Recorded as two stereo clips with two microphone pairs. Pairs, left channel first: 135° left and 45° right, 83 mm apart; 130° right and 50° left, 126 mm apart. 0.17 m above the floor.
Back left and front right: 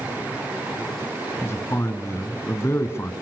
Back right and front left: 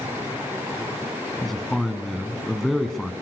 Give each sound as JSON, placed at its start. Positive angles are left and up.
{"t": 1.4, "sound": "a man speaking", "azimuth_deg": 140, "distance_m": 1.9}